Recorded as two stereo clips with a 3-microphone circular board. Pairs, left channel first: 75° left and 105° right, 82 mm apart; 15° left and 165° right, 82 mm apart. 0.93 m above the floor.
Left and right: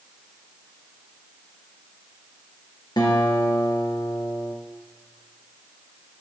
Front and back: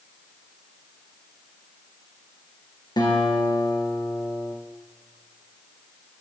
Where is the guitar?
40° left, 4 m.